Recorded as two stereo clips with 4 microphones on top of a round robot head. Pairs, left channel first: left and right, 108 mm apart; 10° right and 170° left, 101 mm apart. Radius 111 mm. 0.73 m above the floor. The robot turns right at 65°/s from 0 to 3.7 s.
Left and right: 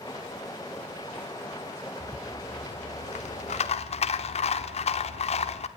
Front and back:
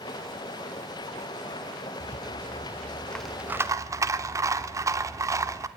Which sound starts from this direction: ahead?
A rattle, at 2.0 s.